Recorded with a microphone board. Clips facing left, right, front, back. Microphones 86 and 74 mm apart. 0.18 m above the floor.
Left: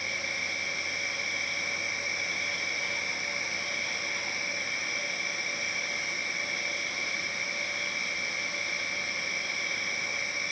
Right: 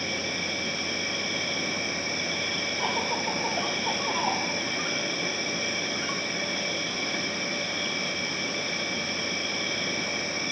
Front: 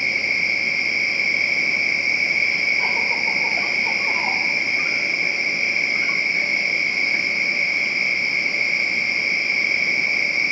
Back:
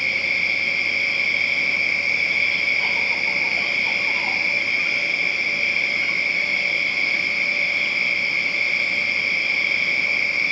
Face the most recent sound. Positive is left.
turn(degrees=-70)